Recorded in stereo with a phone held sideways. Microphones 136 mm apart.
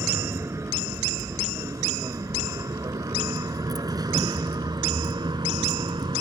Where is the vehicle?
20° right (ahead or behind); by 6.2 s 35° right (ahead or behind).